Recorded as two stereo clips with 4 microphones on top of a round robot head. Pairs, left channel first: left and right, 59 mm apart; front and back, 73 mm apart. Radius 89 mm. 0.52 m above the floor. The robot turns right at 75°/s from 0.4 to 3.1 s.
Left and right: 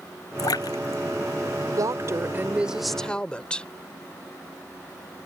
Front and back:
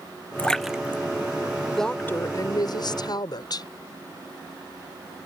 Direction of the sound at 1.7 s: 85° right.